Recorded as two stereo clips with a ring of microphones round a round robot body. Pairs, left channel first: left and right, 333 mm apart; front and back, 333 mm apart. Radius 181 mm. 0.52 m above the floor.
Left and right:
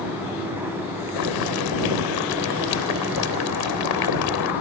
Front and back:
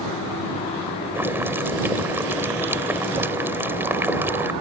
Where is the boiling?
95° left.